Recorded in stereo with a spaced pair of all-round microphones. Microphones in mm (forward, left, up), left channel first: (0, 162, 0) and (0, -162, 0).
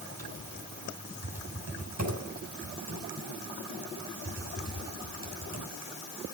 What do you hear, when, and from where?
0.2 s typing on a keyboard: 55° right (ahead or behind), 6.5 m